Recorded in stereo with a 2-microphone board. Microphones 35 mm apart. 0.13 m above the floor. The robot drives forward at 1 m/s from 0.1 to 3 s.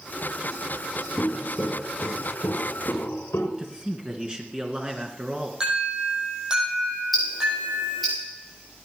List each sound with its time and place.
1.2 s footsteps: 35° left (ahead or behind), 1.5 m; by 3.5 s 80° left, 3.5 m
3.6 s a man speaking: 25° right (ahead or behind), 1.8 m
5.6 s an alarm: 20° right (ahead or behind), 6 m
7.1 s ticking: centre (ahead or behind), 8.5 m